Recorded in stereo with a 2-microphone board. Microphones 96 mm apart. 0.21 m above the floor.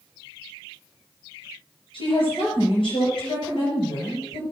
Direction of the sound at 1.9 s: 60° left (ahead or behind).